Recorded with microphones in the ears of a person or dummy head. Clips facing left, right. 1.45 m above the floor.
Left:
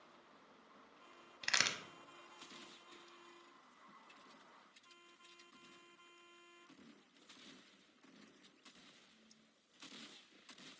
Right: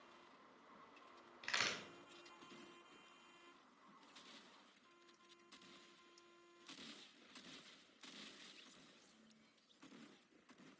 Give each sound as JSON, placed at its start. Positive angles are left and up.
{"t": 1.4, "sound": "a crack", "side_deg": 60, "distance_m": 0.7}